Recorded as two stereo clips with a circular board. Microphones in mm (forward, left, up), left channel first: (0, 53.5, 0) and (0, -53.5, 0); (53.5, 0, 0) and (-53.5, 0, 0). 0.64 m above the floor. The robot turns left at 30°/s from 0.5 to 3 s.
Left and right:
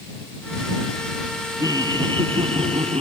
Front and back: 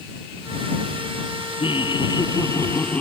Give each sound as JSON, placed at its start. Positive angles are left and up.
{"t": 1.6, "sound": "laughter", "azimuth_deg": -35}